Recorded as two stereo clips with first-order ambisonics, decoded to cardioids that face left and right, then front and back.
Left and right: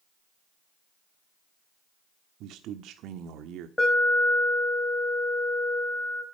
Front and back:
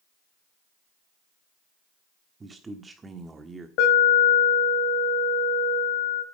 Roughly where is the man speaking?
Right.